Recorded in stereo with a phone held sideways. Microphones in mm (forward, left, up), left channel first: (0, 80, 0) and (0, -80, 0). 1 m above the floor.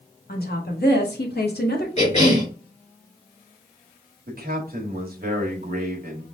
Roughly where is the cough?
Left.